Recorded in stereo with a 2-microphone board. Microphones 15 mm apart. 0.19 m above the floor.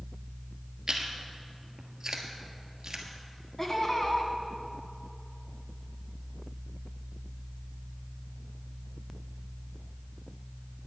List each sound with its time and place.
0.9 s chewing: 35° right (ahead or behind), 1.4 m
3.6 s laughter: 25° left (ahead or behind), 1.6 m